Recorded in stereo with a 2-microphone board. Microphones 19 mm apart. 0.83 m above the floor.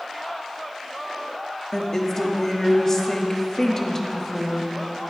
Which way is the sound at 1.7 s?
25° left (ahead or behind).